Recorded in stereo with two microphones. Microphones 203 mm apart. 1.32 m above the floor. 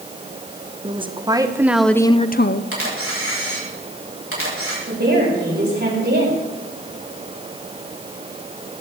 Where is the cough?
I don't hear a cough.